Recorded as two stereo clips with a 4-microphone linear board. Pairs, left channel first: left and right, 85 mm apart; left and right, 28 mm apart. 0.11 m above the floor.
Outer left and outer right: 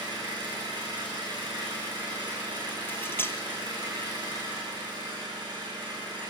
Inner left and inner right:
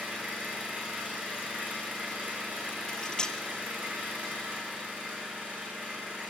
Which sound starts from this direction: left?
Cutlery clinking, at 2.9 s.